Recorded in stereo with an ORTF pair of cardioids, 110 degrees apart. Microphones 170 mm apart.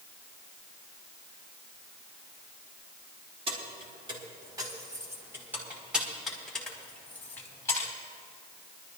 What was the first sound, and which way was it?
Keys jangling, 35° right.